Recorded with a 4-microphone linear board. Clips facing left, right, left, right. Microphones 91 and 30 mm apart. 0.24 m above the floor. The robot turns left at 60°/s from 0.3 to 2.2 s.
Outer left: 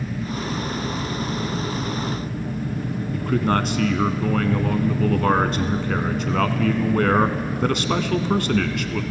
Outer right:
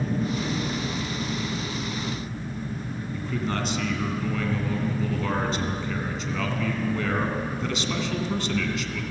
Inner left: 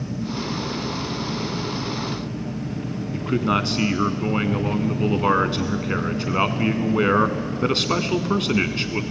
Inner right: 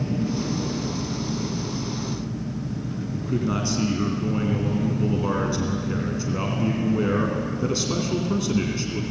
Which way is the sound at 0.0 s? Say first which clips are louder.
Outer right 1 dB, inner right 2 dB; 145° right.